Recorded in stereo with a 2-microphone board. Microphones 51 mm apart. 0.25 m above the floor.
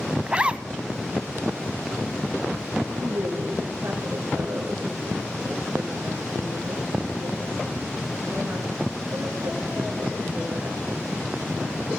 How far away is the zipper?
About 1.0 m.